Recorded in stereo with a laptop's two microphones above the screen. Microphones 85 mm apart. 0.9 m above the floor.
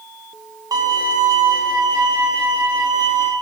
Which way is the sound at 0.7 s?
45° right (ahead or behind).